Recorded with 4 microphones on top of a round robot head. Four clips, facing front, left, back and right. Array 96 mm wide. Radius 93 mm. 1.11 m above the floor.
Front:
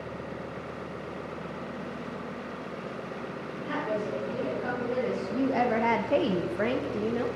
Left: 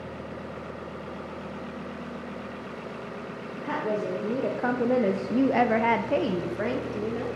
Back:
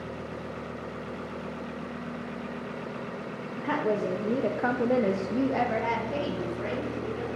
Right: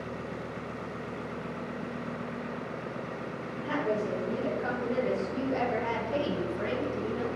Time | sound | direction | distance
3.6 | a woman speaking | 160° left | 1.1 m